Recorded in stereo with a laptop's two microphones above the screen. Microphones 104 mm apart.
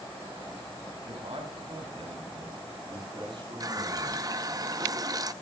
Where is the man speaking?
65° right (ahead or behind), 7 m; by 4.2 s 50° right (ahead or behind), 8.5 m.